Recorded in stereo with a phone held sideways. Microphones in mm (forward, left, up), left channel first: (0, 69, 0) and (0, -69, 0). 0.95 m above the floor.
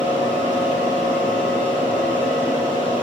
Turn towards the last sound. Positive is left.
turn(degrees=-80)